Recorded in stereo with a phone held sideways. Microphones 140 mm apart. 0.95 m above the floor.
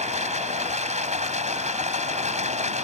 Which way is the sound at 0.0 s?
55° right (ahead or behind).